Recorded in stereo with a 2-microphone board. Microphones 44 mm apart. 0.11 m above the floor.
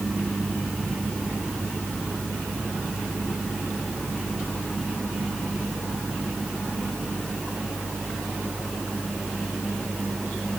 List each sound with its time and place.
Only background noise.